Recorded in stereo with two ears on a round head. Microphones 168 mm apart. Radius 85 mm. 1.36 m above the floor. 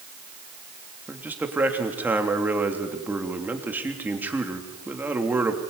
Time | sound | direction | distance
1.1 | a man speaking | 10° right (ahead or behind) | 3 m